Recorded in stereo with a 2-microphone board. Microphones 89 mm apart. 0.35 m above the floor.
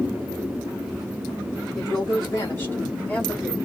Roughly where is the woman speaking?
Left.